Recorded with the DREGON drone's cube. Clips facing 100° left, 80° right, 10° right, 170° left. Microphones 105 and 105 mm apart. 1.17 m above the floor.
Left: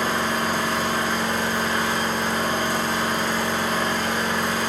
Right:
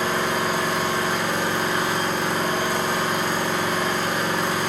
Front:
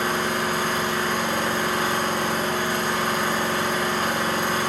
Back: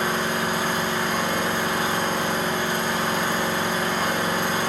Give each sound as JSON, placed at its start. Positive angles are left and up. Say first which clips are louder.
{"t": 0.0, "sound": "an engine running", "louder": "even, even", "azimuth_deg": -145, "distance_m": 0.8}